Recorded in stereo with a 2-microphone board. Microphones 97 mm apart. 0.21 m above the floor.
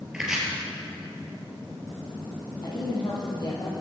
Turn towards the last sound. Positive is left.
turn(degrees=50)  # may be behind; listen again after turning